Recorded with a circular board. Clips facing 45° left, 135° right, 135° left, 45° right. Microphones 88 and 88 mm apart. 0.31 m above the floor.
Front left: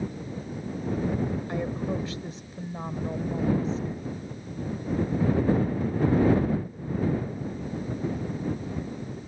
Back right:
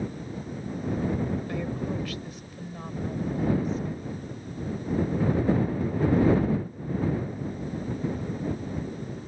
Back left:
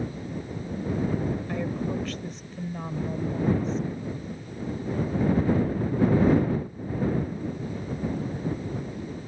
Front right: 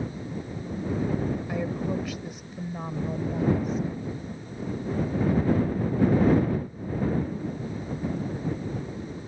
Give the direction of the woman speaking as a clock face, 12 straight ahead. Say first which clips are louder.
Front left 1 dB, even; 11 o'clock.